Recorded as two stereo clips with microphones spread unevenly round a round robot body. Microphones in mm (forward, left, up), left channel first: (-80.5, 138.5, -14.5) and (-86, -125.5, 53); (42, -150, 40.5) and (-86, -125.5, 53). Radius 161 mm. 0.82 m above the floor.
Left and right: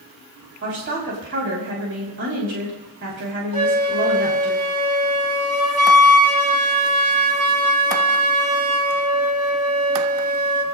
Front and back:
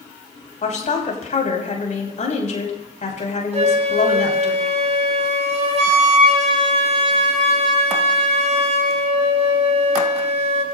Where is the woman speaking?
35° right, 6 m.